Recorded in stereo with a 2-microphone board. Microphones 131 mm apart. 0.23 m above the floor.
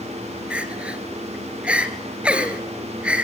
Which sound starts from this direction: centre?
Crying, at 0.5 s.